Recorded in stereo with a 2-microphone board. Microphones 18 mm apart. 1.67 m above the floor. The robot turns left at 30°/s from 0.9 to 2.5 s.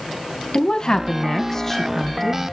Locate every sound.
0.5 s a woman speaking: 35° left, 1.5 m; by 2.4 s 10° right, 1.5 m